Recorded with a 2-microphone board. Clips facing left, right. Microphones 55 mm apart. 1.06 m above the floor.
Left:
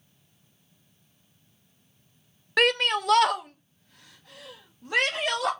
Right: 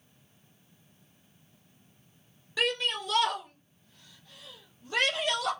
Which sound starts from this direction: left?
A shout, at 2.6 s.